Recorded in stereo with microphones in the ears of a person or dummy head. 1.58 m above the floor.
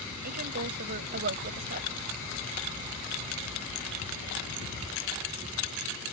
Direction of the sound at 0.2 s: 45° right (ahead or behind).